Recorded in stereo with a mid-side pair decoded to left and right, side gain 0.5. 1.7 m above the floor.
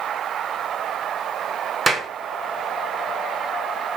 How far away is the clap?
About 1.6 m.